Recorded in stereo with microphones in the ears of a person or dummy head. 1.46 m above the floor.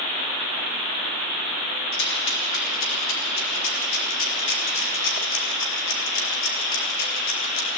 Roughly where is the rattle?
Left.